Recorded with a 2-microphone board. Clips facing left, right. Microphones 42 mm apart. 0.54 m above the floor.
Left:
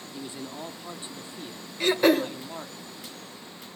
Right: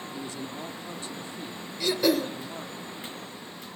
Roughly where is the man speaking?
Left.